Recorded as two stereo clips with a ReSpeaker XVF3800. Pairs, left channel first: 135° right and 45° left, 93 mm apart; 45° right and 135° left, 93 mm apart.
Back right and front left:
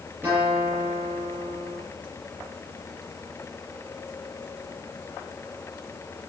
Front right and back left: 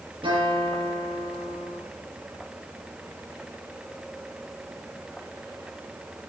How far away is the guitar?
About 7.5 m.